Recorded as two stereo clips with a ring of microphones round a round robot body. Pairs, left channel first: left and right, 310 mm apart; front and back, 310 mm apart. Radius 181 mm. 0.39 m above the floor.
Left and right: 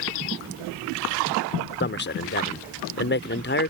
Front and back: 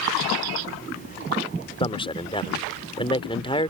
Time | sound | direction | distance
1.8 | a man speaking | 65° left | ?